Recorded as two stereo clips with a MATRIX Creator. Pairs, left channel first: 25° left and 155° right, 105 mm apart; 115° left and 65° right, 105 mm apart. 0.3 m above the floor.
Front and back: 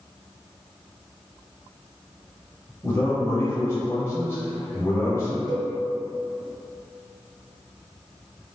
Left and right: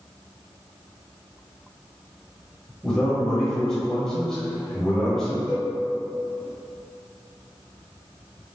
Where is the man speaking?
35° left, 1.2 m.